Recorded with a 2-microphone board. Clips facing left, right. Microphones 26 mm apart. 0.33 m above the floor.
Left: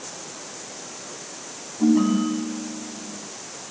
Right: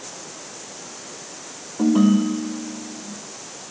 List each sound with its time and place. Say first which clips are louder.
1.8 s a ringtone: right 2 dB; 70° right (ahead or behind), 7 m